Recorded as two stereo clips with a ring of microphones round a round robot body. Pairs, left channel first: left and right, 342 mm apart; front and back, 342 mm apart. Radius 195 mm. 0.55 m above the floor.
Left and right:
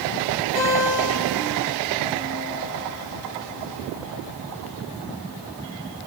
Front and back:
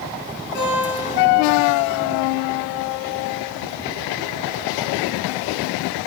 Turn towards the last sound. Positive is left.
turn(degrees=60)